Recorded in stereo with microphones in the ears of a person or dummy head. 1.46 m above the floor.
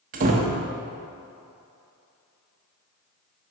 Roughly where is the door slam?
Right.